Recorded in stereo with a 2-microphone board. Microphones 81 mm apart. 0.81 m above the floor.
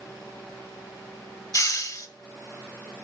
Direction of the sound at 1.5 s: 50° left (ahead or behind).